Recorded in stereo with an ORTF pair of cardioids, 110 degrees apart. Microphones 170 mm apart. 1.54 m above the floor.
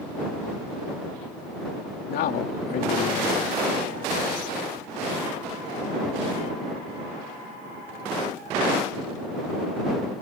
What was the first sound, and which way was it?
A man speaking, 70° left.